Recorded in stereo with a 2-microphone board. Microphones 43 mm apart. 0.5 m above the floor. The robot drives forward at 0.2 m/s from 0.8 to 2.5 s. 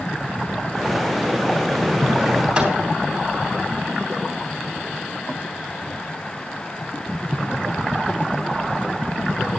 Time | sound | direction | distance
2.5 | a microwave | 20° right (ahead or behind) | 3.5 m